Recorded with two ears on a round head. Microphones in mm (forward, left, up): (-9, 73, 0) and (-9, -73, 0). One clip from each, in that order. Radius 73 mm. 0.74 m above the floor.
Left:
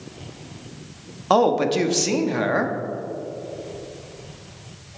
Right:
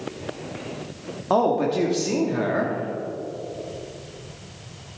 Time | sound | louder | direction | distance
1.3 | a man speaking | left 3 dB | 55° left (ahead or behind) | 1.0 m